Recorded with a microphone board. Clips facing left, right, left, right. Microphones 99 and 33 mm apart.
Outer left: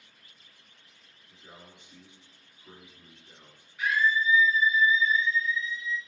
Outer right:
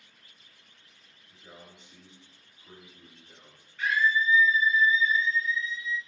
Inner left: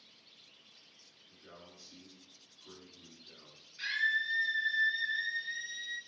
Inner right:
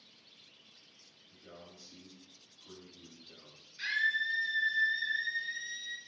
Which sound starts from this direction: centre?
A scream, at 3.8 s.